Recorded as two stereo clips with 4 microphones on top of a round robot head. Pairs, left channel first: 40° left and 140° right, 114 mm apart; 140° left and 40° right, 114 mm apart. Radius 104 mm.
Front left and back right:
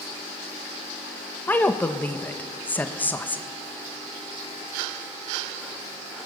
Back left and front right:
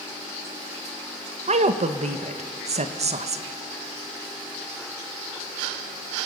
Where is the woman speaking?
35° right, 1.4 m.